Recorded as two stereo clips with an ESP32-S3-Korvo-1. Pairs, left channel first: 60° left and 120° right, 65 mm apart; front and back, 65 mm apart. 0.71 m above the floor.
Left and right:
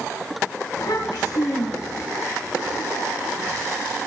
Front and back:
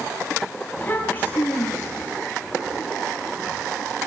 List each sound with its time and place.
0.8 s a child speaking: 60° left, 3 m